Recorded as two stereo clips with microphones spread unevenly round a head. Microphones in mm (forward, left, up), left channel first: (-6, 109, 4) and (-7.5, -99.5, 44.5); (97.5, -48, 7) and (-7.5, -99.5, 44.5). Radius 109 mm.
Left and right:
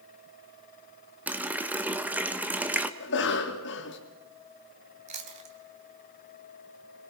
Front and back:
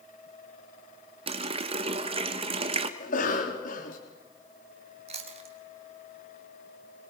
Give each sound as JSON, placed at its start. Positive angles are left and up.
{"t": 1.3, "sound": "a running tap", "azimuth_deg": -165, "distance_m": 1.2}
{"t": 3.0, "sound": "a cough", "azimuth_deg": 50, "distance_m": 3.0}
{"t": 5.1, "sound": "chewing", "azimuth_deg": -145, "distance_m": 2.5}